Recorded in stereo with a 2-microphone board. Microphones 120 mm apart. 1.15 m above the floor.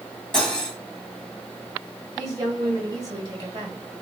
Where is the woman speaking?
30° right (ahead or behind), 1.5 m.